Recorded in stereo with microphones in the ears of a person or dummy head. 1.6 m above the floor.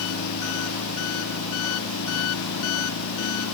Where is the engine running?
75° left (ahead or behind).